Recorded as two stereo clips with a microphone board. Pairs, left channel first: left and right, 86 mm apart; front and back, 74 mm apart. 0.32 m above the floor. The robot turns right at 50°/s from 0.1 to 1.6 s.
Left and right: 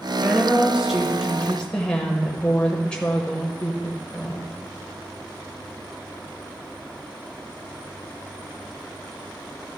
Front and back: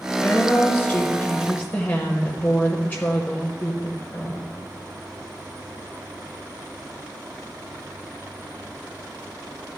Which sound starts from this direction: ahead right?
A woman speaking, at 0.2 s.